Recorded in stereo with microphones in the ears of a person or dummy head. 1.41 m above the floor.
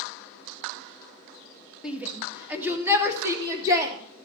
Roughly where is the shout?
Centre.